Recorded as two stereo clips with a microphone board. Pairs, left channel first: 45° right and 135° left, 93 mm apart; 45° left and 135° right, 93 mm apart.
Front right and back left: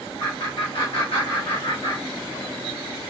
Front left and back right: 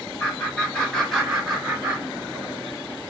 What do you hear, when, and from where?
0.2 s laughter: 15° right, 1.1 m; by 2.6 s 100° right, 1.0 m